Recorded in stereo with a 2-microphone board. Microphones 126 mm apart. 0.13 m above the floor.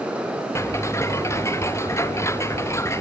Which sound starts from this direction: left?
Ticking, at 0.6 s.